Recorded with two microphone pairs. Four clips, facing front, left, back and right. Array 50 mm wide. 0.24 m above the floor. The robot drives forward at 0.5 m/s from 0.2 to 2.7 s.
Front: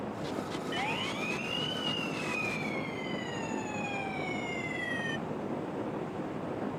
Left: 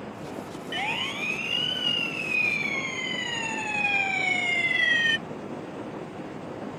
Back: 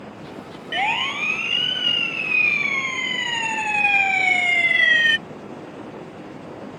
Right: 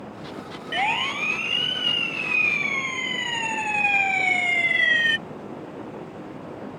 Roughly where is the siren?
Behind right.